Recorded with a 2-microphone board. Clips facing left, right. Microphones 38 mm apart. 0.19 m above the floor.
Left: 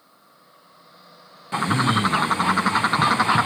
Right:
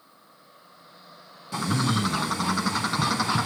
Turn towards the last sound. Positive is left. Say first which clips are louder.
# left 5 dB
turn(degrees=35)  # may be behind; listen again after turning